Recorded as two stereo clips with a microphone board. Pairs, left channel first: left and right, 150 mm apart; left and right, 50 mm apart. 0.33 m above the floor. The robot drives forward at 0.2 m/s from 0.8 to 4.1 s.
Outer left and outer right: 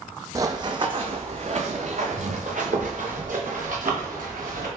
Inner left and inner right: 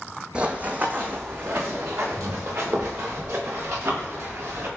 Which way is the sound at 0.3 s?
20° right (ahead or behind).